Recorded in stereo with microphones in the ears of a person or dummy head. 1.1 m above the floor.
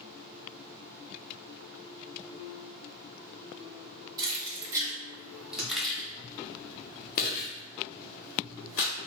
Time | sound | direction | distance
4.2 | keys jangling | 25° right (ahead or behind) | 1.6 m